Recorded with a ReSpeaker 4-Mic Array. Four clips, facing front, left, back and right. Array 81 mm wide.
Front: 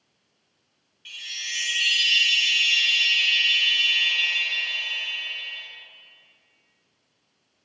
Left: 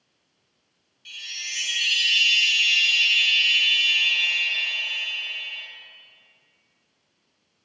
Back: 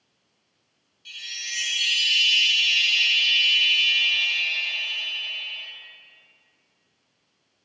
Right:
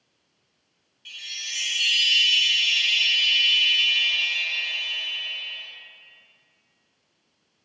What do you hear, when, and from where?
1.1 s a chime: 10° right, 0.6 m